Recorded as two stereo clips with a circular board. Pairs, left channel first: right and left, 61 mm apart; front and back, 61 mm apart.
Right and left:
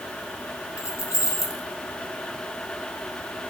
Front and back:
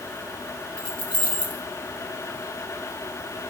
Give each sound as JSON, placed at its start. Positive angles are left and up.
{"t": 0.8, "sound": "keys jangling", "azimuth_deg": -70, "distance_m": 2.0}